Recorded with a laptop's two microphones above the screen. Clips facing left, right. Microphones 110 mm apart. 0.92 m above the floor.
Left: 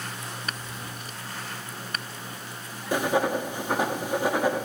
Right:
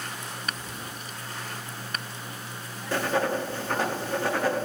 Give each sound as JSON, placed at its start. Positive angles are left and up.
{"t": 0.5, "sound": "whispering", "side_deg": -40, "distance_m": 7.5}
{"t": 2.9, "sound": "writing", "side_deg": 15, "distance_m": 0.8}